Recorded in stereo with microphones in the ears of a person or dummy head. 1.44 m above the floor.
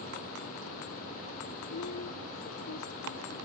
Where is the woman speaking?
85° left.